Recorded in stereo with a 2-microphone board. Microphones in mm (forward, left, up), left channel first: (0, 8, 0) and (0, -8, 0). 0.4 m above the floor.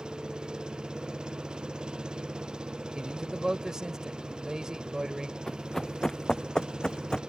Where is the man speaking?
50° right (ahead or behind).